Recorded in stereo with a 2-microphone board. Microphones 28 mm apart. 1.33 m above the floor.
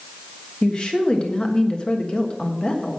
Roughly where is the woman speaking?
Left.